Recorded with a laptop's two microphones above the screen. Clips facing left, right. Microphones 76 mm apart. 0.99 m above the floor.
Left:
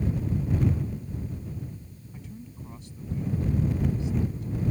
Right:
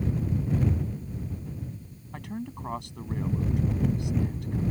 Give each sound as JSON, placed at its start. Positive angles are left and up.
{"t": 2.1, "sound": "a man speaking", "side_deg": -75}